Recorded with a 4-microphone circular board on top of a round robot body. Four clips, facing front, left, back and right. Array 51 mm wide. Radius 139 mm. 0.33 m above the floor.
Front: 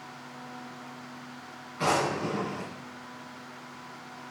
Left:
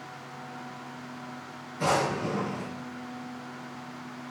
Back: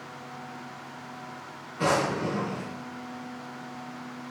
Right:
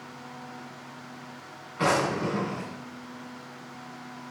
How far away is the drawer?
About 2.5 m.